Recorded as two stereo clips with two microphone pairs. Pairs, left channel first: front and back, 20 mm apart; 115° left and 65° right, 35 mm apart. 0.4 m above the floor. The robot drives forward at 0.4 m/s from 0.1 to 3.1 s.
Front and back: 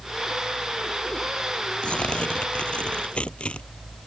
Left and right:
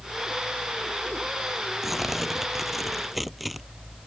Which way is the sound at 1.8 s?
15° left.